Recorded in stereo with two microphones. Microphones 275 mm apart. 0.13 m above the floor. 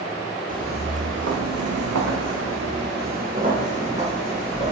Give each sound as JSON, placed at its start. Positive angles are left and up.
{"t": 0.5, "sound": "footsteps", "side_deg": -30, "distance_m": 0.8}